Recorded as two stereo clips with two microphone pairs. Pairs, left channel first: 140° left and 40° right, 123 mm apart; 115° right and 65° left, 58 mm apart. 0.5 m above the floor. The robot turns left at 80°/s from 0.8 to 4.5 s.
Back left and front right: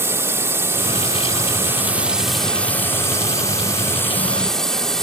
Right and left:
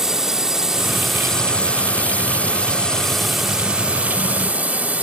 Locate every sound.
0.0 s a drone: 5° right; by 5.0 s 60° left